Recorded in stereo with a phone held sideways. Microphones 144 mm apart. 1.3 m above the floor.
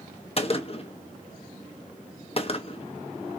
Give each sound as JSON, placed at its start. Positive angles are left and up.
{"t": 0.4, "sound": "a gunshot", "side_deg": 40, "distance_m": 0.8}